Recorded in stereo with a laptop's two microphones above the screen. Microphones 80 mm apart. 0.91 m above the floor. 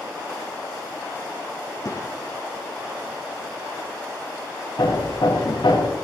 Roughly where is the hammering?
Left.